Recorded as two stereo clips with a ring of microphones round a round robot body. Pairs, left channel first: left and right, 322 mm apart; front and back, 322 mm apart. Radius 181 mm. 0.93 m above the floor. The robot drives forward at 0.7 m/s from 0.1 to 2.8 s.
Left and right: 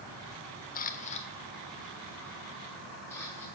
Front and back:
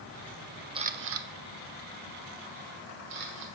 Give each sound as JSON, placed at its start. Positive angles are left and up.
{"t": 0.8, "sound": "a camera shutter", "azimuth_deg": 120, "distance_m": 0.5}